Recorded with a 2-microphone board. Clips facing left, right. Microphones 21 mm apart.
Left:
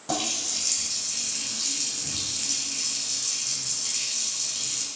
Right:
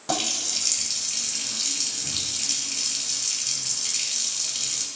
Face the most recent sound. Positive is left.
turn(degrees=-25)  # may be behind; listen again after turning